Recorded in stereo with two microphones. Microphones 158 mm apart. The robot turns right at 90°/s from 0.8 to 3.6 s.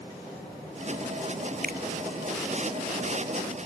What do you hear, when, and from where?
1.6 s a finger snap: 75° right (ahead or behind); by 1.8 s 80° right